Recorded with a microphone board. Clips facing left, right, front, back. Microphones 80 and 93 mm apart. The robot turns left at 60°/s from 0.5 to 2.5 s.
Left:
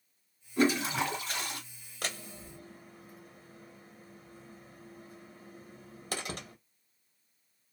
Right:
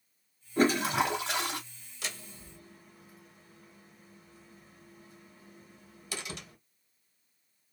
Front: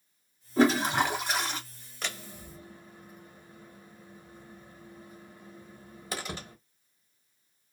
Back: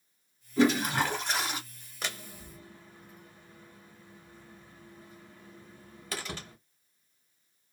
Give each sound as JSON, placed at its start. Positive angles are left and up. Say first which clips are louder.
{"t": 0.6, "sound": "a toilet flushing", "louder": "right 2 dB, front 2 dB", "azimuth_deg": -45, "distance_m": 1.3}
{"t": 2.0, "sound": "a door slam", "louder": "left 3 dB, even", "azimuth_deg": 95, "distance_m": 1.0}